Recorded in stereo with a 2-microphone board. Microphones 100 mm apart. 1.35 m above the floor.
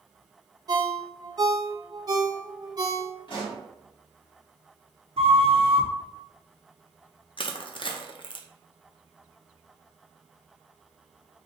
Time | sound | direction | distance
0.7 | a ringtone | 40° right (ahead or behind) | 0.7 m
3.3 | a pop | 55° left (ahead or behind) | 2.0 m
5.2 | a flute | 70° right (ahead or behind) | 0.9 m
7.4 | crushing | 55° left (ahead or behind) | 0.6 m